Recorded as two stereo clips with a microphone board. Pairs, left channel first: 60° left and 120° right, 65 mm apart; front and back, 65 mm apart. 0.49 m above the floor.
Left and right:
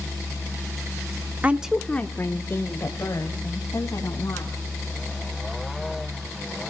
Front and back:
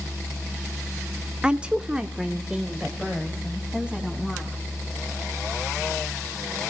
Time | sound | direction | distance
1.4 | a woman speaking | 125° right | 0.8 m